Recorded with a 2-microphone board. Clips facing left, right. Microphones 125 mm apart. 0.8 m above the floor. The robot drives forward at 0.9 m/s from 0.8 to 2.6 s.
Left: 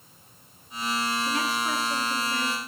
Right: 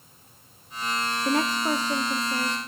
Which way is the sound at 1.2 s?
45° right (ahead or behind).